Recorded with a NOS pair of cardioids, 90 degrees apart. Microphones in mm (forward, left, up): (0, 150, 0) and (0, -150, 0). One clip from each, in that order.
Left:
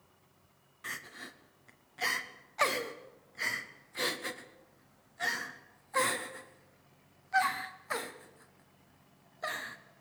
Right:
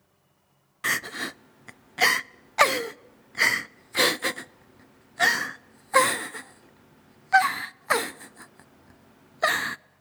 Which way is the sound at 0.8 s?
65° right.